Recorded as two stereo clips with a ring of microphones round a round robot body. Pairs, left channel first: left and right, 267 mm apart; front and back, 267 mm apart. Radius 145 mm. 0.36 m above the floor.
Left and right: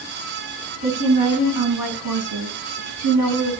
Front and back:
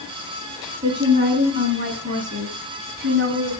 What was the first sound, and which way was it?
A woman speaking, 105° right.